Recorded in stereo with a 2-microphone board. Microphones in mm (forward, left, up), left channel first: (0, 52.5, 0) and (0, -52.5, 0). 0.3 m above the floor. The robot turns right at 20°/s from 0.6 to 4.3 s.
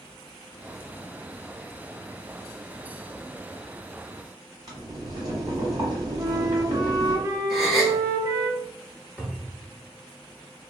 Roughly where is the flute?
Right.